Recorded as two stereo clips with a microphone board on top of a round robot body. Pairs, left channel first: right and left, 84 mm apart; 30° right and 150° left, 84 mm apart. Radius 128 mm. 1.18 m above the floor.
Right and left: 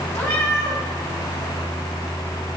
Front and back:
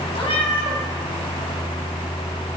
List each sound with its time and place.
0.1 s a cat meowing: 30° right, 5 m